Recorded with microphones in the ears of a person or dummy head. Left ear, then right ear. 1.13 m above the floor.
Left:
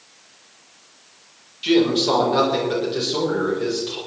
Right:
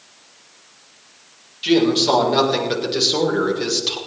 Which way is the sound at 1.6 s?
10° right (ahead or behind).